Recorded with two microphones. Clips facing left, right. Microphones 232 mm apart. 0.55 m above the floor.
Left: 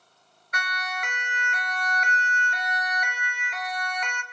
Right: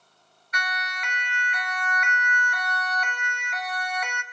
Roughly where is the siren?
Left.